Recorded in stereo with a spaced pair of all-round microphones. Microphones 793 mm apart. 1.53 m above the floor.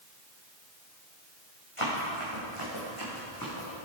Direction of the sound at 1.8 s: 40° left (ahead or behind).